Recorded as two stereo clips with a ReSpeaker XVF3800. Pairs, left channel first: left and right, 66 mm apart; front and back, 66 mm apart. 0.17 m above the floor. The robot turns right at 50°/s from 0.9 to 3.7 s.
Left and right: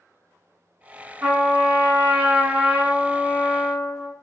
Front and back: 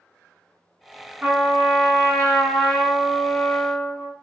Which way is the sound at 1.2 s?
130° right.